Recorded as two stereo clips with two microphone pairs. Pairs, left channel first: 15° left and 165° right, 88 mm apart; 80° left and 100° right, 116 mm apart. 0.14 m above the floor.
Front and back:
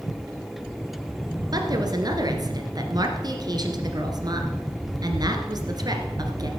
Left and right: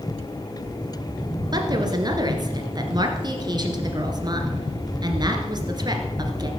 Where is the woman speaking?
145° right, 1.9 m.